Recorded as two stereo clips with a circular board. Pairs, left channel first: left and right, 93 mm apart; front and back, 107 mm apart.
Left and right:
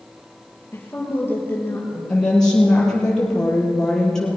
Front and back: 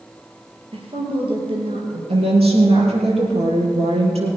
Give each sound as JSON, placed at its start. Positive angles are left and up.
{"t": 0.7, "sound": "a woman speaking", "azimuth_deg": 155, "distance_m": 4.0}
{"t": 2.1, "sound": "a woman speaking", "azimuth_deg": 175, "distance_m": 5.5}